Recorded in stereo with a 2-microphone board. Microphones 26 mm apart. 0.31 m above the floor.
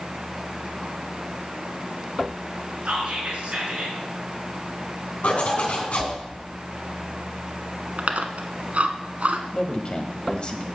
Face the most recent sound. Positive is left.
turn(degrees=40)  # may be behind; listen again after turning